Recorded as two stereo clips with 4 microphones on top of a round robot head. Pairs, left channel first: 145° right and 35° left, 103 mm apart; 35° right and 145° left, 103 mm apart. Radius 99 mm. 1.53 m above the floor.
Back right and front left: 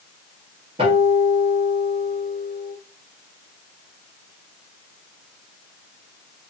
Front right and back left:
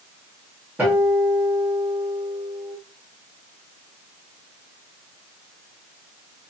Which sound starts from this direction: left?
A guitar, at 0.8 s.